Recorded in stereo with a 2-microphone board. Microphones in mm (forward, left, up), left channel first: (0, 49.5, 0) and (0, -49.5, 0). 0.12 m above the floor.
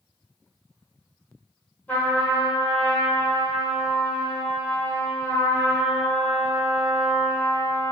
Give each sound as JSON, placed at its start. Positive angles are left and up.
{"t": 1.9, "sound": "a trumpet", "side_deg": 15, "distance_m": 1.0}